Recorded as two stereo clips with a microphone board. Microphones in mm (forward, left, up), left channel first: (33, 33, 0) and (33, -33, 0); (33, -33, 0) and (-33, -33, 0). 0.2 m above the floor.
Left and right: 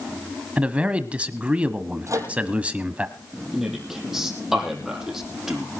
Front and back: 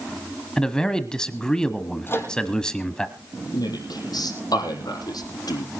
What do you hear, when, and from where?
0.6 s a man speaking: 60° right, 1.2 m
2.1 s a microwave: 55° right, 5 m
3.5 s a man speaking: 5° right, 6.5 m